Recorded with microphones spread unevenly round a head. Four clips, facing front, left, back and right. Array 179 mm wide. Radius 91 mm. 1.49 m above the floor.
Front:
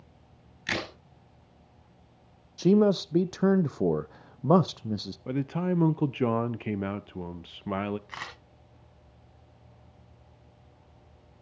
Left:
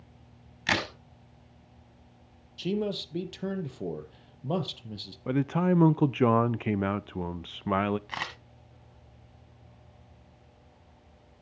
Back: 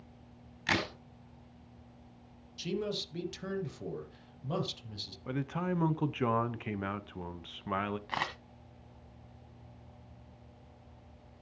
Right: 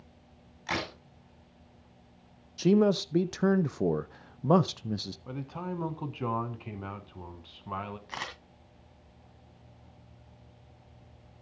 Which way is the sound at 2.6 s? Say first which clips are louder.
Right 7 dB, front 14 dB; 25° right.